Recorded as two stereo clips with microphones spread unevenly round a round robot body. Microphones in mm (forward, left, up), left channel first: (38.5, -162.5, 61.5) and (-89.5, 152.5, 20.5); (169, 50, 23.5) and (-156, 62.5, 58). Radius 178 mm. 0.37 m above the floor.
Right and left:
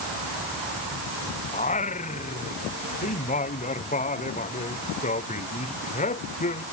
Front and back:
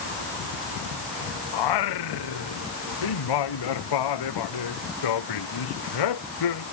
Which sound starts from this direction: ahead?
Singing, at 1.5 s.